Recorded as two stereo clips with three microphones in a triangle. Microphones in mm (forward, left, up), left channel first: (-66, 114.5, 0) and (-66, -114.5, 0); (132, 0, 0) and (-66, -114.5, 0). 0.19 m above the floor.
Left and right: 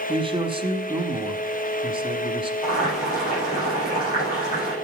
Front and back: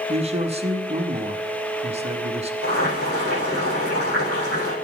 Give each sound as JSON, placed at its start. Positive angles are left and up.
{"t": 0.1, "sound": "a man speaking", "azimuth_deg": -130, "distance_m": 1.1}
{"t": 2.6, "sound": "boiling", "azimuth_deg": 35, "distance_m": 7.0}